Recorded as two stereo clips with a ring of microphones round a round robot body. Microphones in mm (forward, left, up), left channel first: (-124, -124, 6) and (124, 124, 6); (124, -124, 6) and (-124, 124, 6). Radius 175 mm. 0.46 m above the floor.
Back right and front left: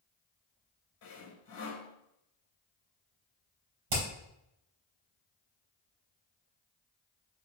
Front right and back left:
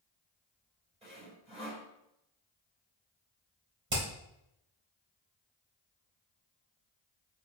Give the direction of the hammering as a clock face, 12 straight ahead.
9 o'clock.